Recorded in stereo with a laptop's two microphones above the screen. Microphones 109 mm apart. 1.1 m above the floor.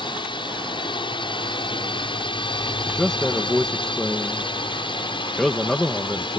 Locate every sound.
0.0 s a drone: 50° left (ahead or behind)
2.9 s a man speaking: 5° left (ahead or behind)